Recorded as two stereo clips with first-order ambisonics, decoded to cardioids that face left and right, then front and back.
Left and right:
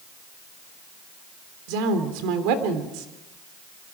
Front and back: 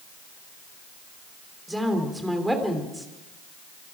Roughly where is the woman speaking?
Right.